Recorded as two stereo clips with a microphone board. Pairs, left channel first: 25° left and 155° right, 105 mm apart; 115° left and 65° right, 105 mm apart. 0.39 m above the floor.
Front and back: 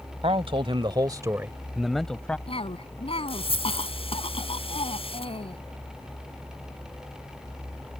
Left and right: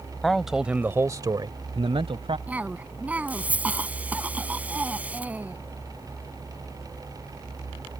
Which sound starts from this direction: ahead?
A cough, at 2.5 s.